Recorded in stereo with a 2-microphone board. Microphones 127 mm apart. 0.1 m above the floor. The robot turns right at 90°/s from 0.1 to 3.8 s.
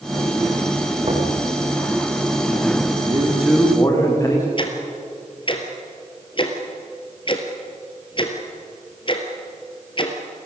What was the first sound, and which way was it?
Knocking, 40° right (ahead or behind).